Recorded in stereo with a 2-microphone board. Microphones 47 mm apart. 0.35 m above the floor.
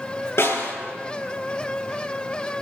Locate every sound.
0.4 s a snare drum: 65° left (ahead or behind), 7.5 m